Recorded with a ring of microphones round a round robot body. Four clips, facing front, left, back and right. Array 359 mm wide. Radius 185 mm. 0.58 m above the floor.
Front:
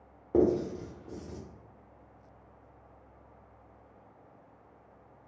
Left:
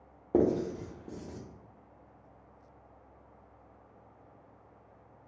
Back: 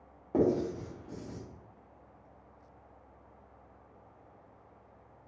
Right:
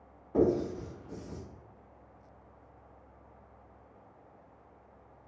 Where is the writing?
70° left, 0.9 m.